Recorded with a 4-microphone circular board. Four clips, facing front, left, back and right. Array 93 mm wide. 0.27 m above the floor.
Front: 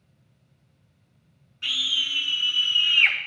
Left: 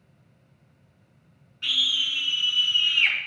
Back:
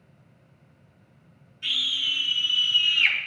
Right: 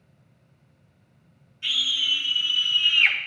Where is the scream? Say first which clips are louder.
Even, front 1 dB; 35° left, 3 m; by 3.2 s 5° right, 3 m.